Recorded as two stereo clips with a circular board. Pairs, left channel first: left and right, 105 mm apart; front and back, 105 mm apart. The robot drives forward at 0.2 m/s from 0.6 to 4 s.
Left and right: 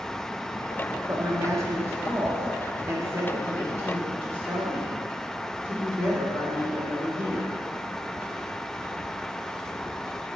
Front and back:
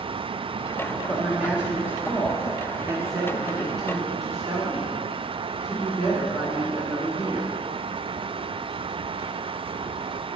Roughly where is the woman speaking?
Right.